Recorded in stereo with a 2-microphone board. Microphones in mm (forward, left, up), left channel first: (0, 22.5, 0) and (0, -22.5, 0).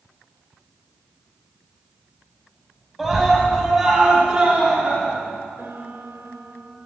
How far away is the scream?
About 3.5 m.